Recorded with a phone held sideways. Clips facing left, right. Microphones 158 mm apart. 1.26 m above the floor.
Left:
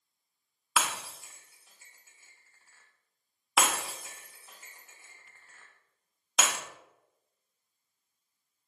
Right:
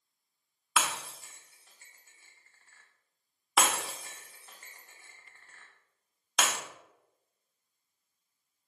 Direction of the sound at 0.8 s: 5° left (ahead or behind).